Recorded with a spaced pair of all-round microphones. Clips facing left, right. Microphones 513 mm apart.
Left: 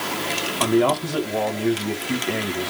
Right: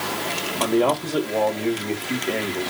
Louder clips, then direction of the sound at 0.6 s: Left 1 dB; 30° left (ahead or behind).